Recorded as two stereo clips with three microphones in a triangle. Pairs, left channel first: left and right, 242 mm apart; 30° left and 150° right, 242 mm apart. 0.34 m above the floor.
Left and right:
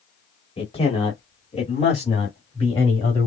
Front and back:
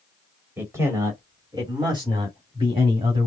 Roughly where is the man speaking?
Behind left.